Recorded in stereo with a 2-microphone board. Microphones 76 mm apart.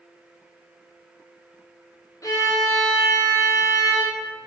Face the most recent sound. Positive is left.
turn(degrees=40)  # may be behind; listen again after turning